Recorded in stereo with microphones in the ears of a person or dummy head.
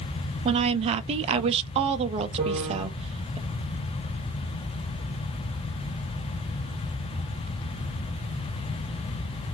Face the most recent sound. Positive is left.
turn(degrees=-30)  # may be behind; listen again after turning